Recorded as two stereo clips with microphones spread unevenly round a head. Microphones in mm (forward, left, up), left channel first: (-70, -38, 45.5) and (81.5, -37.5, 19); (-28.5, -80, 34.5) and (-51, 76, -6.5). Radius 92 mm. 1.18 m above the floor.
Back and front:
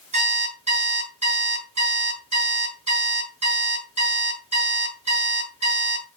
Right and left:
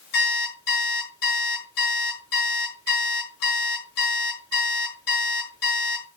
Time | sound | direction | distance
0.1 | an alarm clock | 45° right | 7 m